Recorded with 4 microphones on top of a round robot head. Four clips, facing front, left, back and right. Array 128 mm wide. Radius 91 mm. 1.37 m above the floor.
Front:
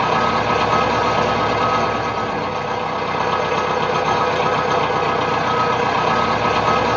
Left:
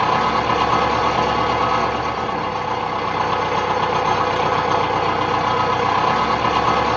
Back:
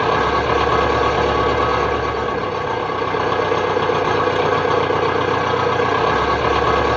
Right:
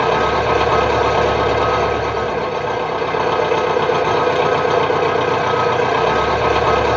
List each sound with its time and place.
0.0 s an engine running: 120° right, 2.5 m